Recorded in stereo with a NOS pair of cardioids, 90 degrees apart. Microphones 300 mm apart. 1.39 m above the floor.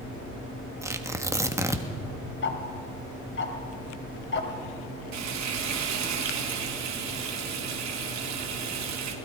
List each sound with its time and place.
0.8 s tearing paper: 10° right, 1.7 m
2.4 s ticking: 40° left, 3 m
5.1 s frying: 65° right, 3.5 m